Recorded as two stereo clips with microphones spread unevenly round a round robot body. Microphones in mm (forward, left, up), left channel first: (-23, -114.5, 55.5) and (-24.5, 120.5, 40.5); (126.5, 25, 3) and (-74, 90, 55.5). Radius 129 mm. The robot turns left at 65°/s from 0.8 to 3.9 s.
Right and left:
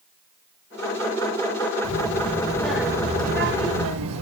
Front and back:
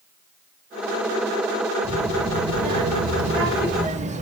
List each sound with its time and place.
1.8 s a child speaking: 120° right, 1.9 m; by 4.2 s 105° left, 1.9 m